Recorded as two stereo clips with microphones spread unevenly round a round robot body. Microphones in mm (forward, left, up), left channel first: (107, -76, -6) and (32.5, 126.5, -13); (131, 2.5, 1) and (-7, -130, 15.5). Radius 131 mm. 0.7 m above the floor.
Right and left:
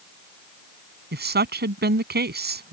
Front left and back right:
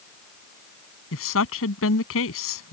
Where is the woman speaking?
70° left.